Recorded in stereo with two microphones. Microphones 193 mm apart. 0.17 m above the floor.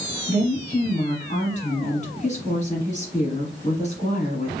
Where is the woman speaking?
40° left (ahead or behind), 1.5 m.